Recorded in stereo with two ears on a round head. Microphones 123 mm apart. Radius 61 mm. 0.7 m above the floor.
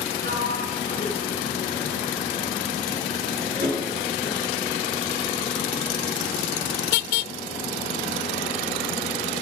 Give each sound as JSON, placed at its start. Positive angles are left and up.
{"t": 0.2, "sound": "a sliding door", "side_deg": -85, "distance_m": 7.5}